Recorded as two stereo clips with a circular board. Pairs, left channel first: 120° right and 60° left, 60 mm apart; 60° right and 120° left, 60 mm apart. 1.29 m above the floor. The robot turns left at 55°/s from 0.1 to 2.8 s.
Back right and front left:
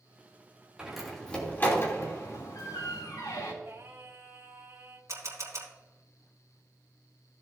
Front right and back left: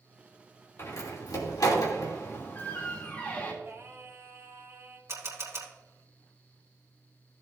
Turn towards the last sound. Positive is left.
turn(degrees=90)